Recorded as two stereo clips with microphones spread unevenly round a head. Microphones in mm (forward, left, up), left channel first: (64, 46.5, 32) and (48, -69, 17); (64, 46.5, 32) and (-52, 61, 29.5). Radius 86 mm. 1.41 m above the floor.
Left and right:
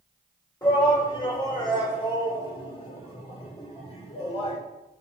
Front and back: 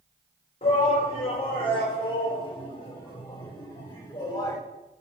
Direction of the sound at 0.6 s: 25° left.